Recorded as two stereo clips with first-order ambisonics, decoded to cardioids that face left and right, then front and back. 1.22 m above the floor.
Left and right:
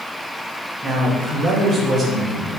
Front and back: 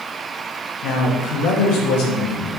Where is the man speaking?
20° right, 0.9 m.